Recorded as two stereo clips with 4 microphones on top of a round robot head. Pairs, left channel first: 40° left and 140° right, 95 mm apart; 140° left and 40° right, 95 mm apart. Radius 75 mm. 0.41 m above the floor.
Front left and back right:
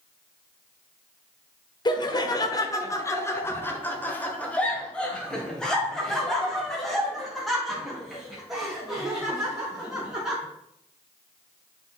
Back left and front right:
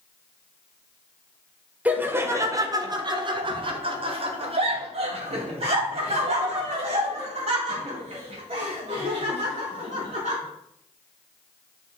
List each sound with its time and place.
1.9 s laughter: 30° left, 1.2 m; by 10.4 s 55° right, 5.5 m